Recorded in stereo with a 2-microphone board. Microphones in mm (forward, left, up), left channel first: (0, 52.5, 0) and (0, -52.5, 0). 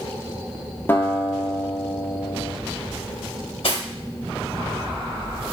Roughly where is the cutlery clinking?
Left.